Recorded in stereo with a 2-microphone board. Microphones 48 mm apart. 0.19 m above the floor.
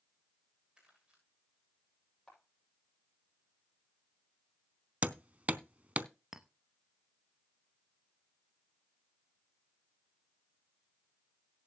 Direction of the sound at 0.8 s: 10° right (ahead or behind).